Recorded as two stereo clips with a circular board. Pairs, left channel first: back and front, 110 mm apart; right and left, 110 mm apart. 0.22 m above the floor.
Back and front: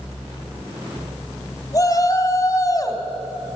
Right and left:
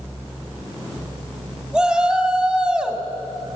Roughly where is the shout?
Behind.